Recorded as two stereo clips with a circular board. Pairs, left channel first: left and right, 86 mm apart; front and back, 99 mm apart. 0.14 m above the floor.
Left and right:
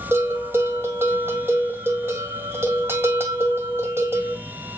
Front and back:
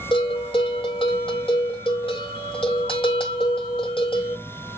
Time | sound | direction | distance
0.1 | a bell | 25° right | 2 m